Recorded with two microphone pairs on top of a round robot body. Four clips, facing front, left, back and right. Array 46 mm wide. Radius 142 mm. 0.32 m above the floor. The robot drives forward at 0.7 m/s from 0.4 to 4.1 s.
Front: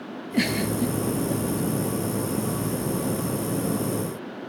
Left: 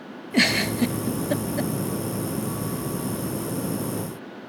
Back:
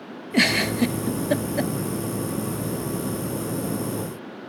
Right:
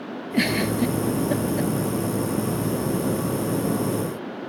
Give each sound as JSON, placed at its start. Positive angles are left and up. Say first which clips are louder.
{"t": 0.3, "sound": "a giggle", "louder": "left 1 dB, back 4 dB", "azimuth_deg": 145, "distance_m": 0.5}